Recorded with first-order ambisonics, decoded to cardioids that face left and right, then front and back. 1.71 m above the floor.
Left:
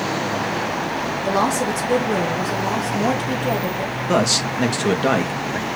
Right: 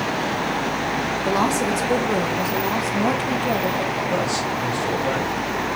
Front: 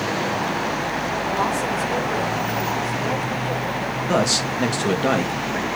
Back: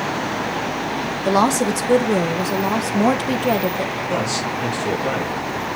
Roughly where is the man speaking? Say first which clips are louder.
Left 3 dB, front 2 dB; ahead left.